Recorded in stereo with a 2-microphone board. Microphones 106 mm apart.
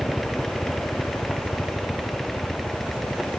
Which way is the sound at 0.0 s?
10° left (ahead or behind).